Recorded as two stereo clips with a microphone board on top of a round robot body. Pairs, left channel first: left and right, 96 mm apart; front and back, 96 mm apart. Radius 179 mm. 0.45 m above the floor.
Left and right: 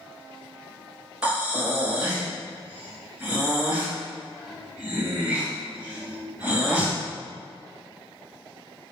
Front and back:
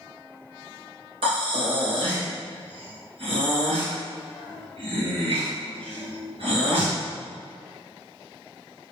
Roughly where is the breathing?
Behind.